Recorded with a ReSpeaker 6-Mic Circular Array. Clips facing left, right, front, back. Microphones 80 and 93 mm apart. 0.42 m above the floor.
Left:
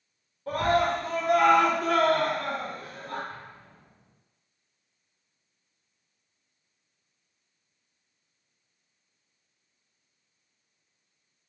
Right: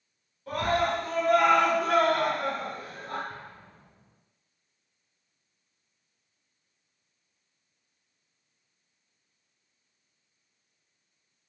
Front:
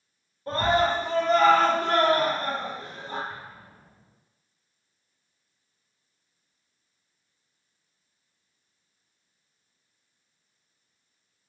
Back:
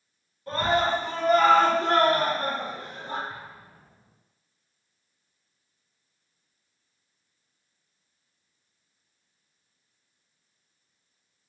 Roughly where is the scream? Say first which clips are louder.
Left 2 dB, front 1 dB; ahead left.